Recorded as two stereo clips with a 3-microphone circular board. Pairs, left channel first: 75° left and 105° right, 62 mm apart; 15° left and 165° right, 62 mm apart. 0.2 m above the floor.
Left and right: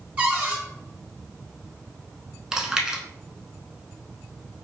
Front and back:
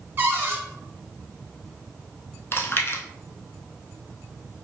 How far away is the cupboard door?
About 0.9 m.